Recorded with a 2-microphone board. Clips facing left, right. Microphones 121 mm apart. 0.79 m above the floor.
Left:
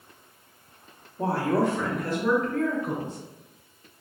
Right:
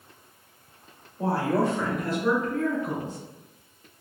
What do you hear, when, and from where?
1.2 s a woman speaking: 60° left (ahead or behind), 1.2 m; by 3.2 s 55° left (ahead or behind), 3 m